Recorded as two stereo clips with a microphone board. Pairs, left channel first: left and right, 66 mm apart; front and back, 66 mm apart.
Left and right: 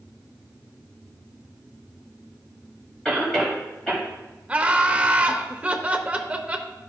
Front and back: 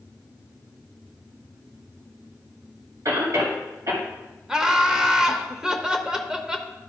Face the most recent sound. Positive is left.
turn(degrees=-120)